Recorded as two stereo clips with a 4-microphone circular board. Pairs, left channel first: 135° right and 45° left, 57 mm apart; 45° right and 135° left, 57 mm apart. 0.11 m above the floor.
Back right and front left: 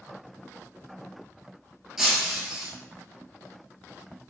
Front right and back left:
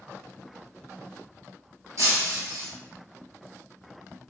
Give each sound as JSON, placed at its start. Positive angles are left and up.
{"t": 2.0, "sound": "breaking glass", "azimuth_deg": 125, "distance_m": 0.9}